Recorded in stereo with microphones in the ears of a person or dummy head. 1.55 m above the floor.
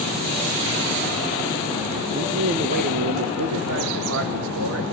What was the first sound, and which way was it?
A man speaking, 35° right (ahead or behind).